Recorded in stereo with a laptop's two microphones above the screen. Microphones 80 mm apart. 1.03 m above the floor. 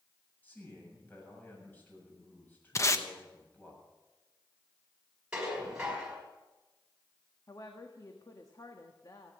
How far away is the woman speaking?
About 1.5 m.